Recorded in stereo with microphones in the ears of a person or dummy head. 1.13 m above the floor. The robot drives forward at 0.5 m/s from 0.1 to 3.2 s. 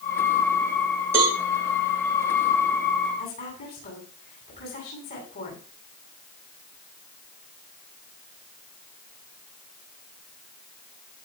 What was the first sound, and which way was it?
A cowbell, 10° right (ahead or behind).